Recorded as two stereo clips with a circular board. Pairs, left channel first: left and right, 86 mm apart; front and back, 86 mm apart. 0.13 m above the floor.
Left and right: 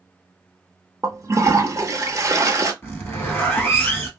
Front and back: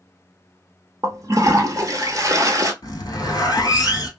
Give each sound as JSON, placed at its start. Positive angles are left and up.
{"t": 1.0, "sound": "a toilet flushing", "azimuth_deg": -140, "distance_m": 0.7}
{"t": 2.8, "sound": "a zipper", "azimuth_deg": 25, "distance_m": 1.0}